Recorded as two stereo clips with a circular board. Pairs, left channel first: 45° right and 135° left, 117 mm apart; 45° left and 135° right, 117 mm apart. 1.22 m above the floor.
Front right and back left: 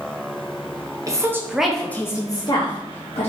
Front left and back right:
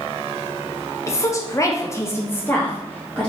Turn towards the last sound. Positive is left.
turn(degrees=-35)